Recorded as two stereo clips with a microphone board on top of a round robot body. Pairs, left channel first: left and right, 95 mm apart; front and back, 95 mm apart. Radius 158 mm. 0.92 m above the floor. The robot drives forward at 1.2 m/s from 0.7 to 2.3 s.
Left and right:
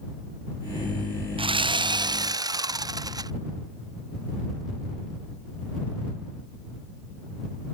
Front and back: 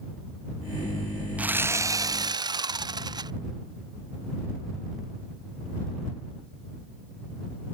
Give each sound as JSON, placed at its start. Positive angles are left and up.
{"t": 1.4, "sound": "sawing", "azimuth_deg": -105}